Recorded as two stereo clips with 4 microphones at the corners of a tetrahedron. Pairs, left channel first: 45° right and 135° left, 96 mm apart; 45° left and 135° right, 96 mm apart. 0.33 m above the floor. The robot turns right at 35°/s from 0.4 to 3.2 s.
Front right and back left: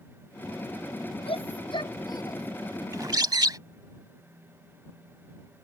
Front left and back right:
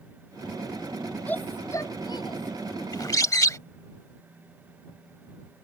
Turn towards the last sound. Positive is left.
turn(degrees=95)